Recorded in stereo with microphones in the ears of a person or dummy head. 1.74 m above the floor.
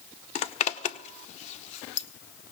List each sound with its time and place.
0.3 s a zipper: 40° left (ahead or behind), 0.9 m